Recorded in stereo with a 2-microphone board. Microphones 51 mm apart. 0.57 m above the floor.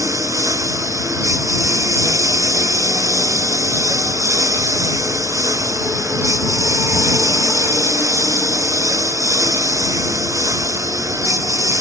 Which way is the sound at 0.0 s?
90° right.